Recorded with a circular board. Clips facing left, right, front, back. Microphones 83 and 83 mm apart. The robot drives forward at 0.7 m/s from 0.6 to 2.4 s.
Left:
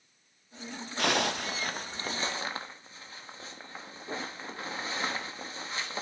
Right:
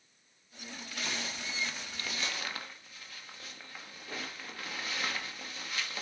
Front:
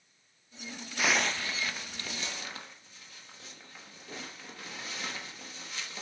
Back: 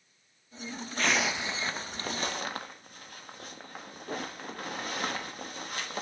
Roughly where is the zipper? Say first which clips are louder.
Left 12 dB, even; left.